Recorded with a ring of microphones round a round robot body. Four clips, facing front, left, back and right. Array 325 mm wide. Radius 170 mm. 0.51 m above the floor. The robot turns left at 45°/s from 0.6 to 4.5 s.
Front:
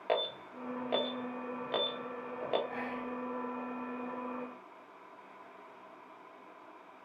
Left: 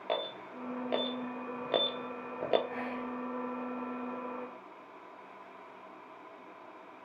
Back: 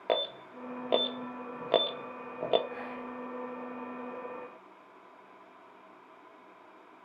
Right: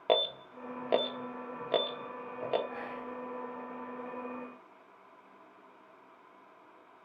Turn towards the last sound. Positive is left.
turn(degrees=-30)